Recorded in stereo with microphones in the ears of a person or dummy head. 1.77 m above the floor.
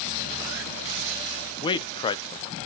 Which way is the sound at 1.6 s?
25° left (ahead or behind).